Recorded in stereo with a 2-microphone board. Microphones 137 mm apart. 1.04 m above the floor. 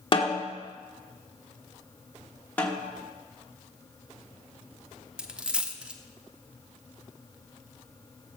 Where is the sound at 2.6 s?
10° left (ahead or behind), 2.5 m.